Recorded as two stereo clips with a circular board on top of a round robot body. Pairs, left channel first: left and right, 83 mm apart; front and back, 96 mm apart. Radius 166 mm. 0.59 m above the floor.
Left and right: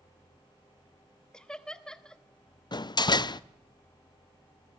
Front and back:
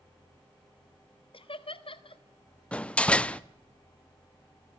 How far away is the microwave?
I don't hear a microwave.